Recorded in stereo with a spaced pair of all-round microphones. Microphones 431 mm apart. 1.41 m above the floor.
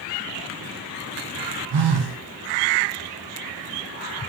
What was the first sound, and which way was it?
A phone buzzing, 65° right (ahead or behind).